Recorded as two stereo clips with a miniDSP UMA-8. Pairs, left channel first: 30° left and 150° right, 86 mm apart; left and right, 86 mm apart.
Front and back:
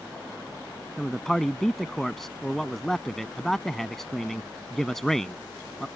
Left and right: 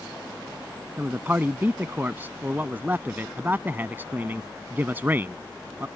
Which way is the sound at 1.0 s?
55° right.